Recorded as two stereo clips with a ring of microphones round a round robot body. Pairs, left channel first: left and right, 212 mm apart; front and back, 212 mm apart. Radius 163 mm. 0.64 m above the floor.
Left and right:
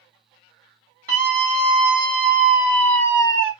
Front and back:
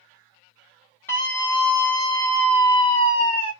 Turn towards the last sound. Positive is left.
turn(degrees=45)